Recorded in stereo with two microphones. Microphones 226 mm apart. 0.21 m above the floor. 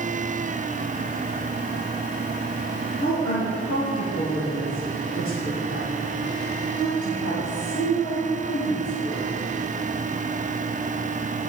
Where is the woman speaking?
70° left (ahead or behind), 7.5 m; by 9.3 s 75° left (ahead or behind), 10.5 m.